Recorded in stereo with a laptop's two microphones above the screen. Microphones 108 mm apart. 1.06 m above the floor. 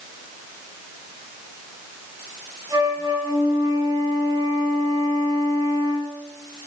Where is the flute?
40° right (ahead or behind), 7.5 m.